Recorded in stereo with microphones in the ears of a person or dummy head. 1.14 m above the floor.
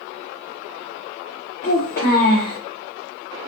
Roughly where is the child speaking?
Left.